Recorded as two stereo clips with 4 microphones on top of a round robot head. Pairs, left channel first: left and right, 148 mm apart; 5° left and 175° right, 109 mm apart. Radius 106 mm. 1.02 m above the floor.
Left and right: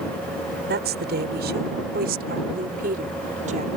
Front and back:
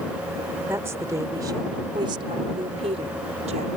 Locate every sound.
0.7 s a woman speaking: 100° right; by 3.7 s 140° right